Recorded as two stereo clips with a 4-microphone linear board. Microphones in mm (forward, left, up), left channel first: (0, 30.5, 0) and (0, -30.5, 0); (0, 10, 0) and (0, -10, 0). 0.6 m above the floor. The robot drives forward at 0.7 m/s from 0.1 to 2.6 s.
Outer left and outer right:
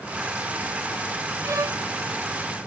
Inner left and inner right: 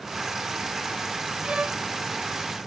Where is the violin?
60° right (ahead or behind), 0.7 m; by 1.8 s 65° right (ahead or behind), 0.7 m.